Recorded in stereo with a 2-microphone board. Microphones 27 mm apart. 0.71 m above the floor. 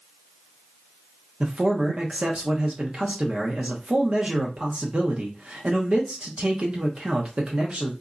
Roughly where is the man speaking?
Right.